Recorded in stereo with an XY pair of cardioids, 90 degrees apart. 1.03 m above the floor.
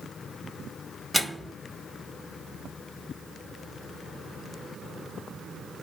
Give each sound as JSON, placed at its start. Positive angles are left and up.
{"t": 1.1, "sound": "a microwave", "azimuth_deg": 0, "distance_m": 0.7}